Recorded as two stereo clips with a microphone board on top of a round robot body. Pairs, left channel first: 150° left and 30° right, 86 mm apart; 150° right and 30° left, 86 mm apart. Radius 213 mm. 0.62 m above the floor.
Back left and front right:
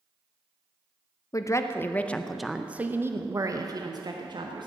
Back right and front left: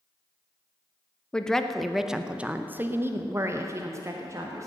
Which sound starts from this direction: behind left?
A woman speaking, at 1.3 s.